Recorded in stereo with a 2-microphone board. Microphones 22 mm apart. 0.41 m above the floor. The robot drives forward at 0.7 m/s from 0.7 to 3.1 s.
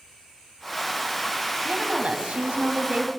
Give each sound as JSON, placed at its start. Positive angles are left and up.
{"t": 1.6, "sound": "a woman speaking", "side_deg": -65, "distance_m": 3.0}